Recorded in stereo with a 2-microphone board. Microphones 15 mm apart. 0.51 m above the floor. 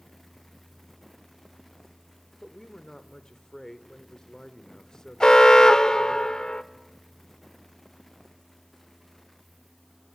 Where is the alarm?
55° left (ahead or behind), 1.0 m.